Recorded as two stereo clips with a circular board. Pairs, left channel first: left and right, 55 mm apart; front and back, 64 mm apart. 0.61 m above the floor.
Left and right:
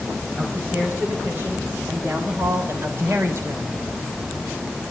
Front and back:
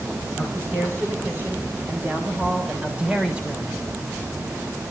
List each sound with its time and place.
0.4 s a man speaking: 135° right, 4.5 m; by 3.8 s 100° right, 2.5 m